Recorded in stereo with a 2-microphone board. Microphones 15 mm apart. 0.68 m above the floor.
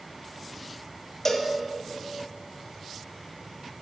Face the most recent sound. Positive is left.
turn(degrees=15)  # may be behind; listen again after turning